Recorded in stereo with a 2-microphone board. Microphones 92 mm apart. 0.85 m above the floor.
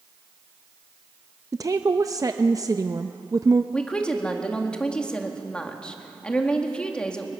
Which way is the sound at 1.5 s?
40° right (ahead or behind).